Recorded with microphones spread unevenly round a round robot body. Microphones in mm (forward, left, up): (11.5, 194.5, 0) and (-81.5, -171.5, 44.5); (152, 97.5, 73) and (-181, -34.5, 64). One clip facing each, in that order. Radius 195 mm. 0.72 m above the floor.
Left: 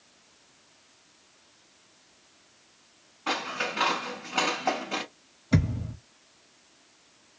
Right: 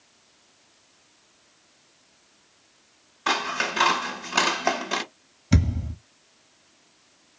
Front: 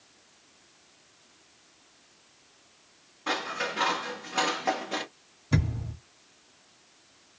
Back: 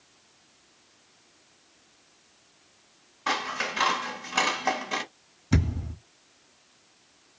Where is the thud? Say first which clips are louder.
Right 2 dB, back 3 dB; 80° right, 1.0 m.